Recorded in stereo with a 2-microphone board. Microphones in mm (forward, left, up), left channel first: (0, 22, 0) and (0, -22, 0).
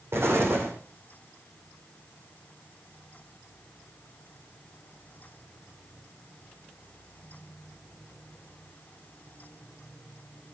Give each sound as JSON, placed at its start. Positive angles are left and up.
{"t": 0.1, "sound": "an explosion", "side_deg": -70, "distance_m": 5.0}